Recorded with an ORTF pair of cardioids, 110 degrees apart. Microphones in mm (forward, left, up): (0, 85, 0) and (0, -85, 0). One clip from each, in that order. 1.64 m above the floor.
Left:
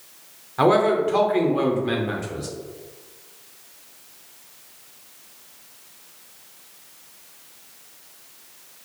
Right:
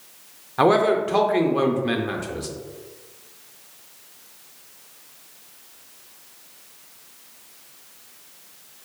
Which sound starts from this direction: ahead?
A man speaking, at 0.6 s.